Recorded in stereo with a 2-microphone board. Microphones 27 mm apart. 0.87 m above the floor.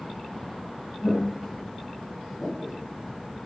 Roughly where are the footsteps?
Left.